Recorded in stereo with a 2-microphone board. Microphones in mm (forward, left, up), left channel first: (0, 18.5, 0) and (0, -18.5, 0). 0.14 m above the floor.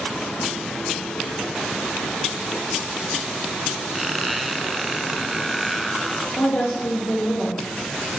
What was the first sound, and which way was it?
A squeak, 5° right (ahead or behind).